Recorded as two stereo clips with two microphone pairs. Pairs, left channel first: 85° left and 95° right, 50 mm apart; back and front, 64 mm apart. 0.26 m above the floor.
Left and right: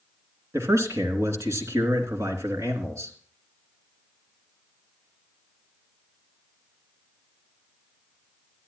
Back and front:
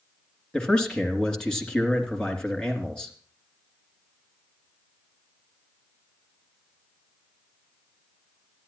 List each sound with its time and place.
0.5 s a man speaking: 100° right, 3 m